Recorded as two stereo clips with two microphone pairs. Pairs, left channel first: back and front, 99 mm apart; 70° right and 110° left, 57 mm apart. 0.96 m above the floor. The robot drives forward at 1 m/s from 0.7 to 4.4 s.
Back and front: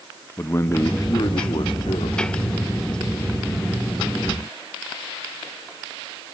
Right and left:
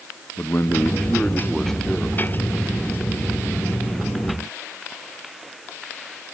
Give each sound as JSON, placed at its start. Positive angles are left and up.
{"t": 0.4, "sound": "a man speaking", "azimuth_deg": -120, "distance_m": 0.9}